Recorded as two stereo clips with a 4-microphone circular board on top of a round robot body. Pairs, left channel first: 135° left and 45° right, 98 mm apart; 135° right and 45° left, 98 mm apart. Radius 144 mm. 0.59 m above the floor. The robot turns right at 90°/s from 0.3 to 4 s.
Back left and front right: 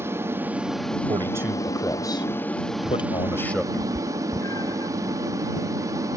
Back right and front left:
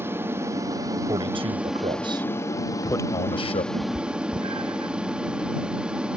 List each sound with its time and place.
0.0 s an aircraft: straight ahead; by 6.2 s 30° right
1.1 s a man speaking: 5° right; by 3.6 s 135° right
3.7 s a cat meowing: 60° left; by 4.9 s 80° left